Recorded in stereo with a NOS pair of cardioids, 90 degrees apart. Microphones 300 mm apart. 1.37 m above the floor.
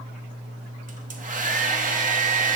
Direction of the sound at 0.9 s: 25° right.